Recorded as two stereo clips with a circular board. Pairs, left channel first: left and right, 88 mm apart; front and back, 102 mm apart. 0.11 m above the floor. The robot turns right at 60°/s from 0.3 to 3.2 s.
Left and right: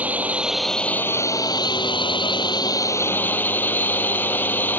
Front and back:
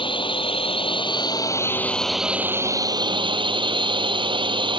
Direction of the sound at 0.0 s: 20° right.